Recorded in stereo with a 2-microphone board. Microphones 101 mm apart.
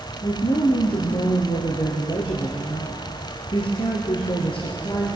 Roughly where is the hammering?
I don't hear hammering.